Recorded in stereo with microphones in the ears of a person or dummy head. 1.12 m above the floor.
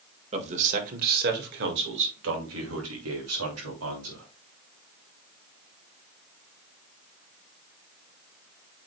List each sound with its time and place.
0.3 s a man speaking: 35° right (ahead or behind), 1.6 m; by 4.2 s 75° right (ahead or behind), 3 m